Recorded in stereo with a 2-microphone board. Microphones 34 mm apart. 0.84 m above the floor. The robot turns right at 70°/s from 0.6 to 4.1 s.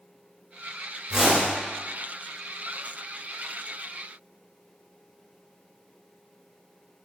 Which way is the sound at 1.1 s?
10° right (ahead or behind).